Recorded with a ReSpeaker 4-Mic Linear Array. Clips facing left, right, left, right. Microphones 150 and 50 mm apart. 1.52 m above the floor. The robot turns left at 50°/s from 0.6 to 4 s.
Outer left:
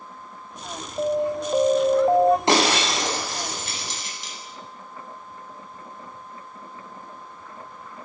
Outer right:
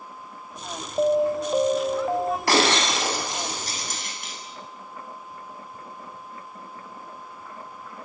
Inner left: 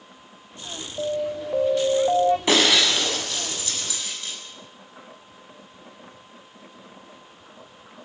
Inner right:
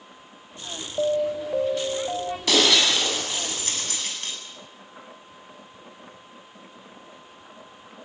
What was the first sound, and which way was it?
An alarm, 155° right.